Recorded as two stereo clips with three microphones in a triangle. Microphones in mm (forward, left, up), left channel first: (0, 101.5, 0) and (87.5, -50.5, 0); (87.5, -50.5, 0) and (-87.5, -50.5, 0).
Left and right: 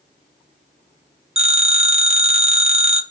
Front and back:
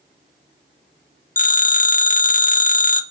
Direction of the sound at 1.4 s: 15° right.